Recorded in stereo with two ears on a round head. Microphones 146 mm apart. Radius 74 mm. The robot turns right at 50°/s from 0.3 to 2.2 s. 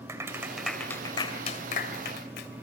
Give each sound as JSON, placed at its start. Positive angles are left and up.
{"t": 0.1, "sound": "a clap", "side_deg": -15, "distance_m": 2.5}